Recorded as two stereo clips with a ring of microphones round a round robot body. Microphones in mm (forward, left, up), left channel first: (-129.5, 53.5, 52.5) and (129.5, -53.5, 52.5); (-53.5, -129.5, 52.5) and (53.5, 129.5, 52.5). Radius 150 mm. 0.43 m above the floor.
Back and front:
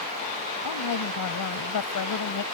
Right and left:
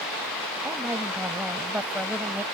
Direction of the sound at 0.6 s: 150° left.